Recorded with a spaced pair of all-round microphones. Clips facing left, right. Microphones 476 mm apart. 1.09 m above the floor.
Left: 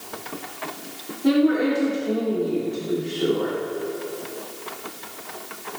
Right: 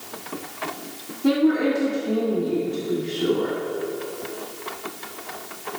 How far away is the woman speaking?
About 2.5 m.